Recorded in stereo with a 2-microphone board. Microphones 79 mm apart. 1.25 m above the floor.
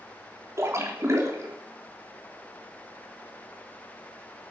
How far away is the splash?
About 3 m.